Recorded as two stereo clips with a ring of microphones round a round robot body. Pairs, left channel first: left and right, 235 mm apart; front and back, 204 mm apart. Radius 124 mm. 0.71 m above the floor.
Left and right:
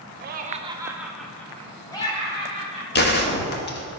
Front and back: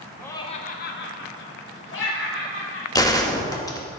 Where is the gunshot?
65° left, 1.0 m.